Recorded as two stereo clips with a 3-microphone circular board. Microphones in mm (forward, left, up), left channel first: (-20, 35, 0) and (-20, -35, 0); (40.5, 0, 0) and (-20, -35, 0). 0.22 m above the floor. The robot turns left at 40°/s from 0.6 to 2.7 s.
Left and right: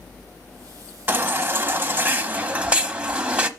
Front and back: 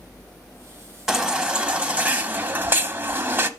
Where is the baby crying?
75° right, 0.7 m; by 3.5 s 140° right, 0.7 m.